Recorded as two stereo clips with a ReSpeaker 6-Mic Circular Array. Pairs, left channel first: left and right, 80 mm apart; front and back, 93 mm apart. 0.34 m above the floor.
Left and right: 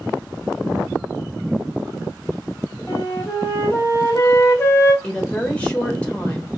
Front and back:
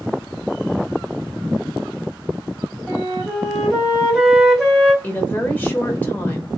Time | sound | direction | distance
2.9 | a flute | 105° left | 1.4 m
5.0 | a woman speaking | 40° left | 0.9 m